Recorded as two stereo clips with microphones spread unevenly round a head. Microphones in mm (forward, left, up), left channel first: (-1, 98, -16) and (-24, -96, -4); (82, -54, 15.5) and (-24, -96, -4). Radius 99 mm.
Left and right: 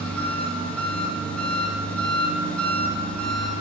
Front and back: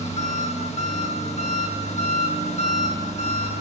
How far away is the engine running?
About 1.3 m.